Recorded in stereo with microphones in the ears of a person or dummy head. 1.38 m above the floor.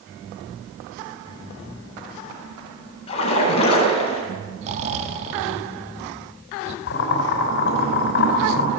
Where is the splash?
30° left (ahead or behind), 8.5 m.